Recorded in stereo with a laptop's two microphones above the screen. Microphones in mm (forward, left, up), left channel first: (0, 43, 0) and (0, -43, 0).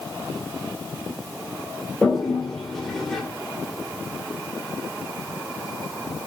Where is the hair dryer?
I don't hear a hair dryer.